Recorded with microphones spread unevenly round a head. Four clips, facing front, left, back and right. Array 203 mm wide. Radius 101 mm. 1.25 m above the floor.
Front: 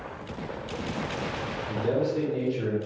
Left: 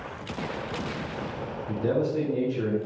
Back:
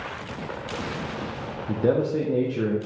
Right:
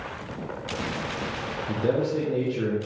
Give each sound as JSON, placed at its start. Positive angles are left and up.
{"t": 1.7, "sound": "a man speaking", "azimuth_deg": -170, "distance_m": 1.1}